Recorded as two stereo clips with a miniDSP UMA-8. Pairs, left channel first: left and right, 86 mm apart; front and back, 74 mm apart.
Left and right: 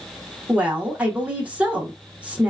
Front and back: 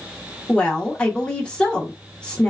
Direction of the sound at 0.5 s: 50° right.